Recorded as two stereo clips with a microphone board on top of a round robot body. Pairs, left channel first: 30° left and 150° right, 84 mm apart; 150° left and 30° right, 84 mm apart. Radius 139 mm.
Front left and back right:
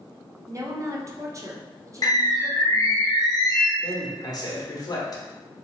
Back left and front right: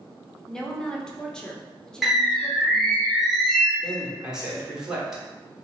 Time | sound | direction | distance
0.5 | a woman speaking | 135° right | 1.0 m
2.0 | a bird | 60° left | 1.2 m
3.8 | a man speaking | 50° left | 1.4 m